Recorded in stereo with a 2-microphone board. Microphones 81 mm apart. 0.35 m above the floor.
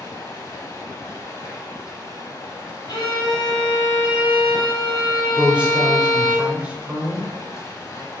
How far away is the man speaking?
About 0.9 m.